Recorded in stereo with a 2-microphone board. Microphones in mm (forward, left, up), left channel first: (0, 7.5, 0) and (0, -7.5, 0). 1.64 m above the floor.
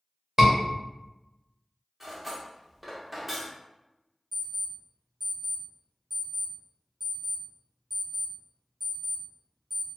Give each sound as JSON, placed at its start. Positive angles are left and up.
{"t": 0.4, "sound": "a scream", "side_deg": -30, "distance_m": 1.2}
{"t": 2.0, "sound": "cutlery clinking", "side_deg": -15, "distance_m": 0.9}
{"t": 4.3, "sound": "an alarm clock", "side_deg": -20, "distance_m": 1.6}